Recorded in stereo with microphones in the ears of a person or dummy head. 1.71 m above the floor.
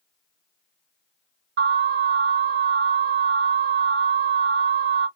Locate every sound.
1.6 s an alarm: 60° right (ahead or behind), 2.5 m